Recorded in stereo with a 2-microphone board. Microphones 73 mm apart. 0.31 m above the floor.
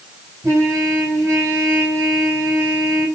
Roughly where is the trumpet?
Right.